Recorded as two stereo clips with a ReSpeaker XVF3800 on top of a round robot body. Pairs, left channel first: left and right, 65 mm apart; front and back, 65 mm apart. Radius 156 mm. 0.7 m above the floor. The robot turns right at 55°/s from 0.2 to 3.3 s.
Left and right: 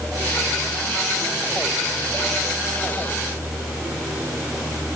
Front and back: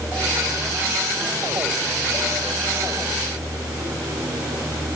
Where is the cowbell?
No cowbell in this recording.